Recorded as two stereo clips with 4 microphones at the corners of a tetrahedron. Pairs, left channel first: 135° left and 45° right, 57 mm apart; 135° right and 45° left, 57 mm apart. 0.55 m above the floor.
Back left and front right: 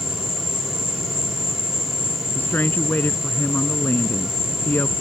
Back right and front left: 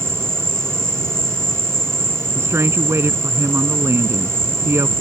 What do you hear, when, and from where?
0.0 s an insect: 55° right
2.4 s a woman speaking: 80° left